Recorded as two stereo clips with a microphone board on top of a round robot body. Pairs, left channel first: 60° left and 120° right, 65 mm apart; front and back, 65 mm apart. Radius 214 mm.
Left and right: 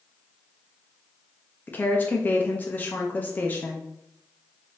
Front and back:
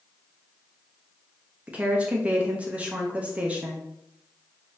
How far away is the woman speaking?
About 0.7 m.